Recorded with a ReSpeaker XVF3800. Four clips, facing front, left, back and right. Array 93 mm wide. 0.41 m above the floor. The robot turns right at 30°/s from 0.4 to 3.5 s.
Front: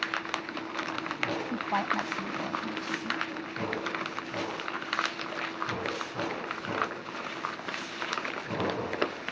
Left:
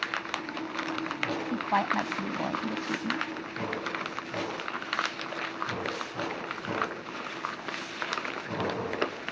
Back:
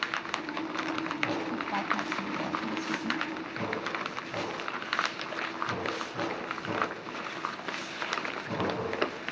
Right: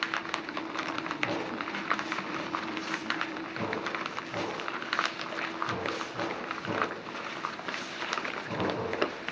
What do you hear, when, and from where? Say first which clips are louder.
1.5 s a woman speaking: left 5 dB, front 1 dB; 65° left; by 3.2 s 115° left